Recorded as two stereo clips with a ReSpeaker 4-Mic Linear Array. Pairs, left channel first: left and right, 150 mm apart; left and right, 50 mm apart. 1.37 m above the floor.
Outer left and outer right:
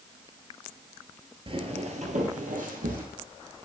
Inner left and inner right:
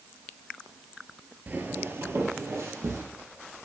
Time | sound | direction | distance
1.5 | footsteps | 35° right (ahead or behind) | 1.8 m